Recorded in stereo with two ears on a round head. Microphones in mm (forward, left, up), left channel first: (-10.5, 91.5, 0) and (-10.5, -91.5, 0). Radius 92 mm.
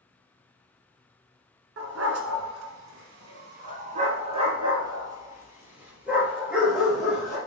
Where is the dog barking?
80° right, 1.6 m; by 7.4 s centre (ahead or behind), 3 m.